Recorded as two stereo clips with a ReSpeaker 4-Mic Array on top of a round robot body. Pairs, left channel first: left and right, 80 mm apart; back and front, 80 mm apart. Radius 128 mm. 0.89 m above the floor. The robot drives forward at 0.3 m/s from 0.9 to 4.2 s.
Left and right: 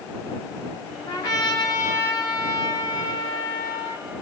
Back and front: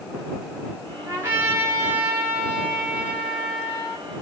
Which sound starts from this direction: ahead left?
A trumpet, at 1.1 s.